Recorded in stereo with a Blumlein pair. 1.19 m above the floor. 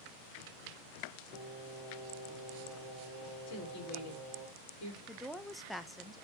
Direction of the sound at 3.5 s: 45° left.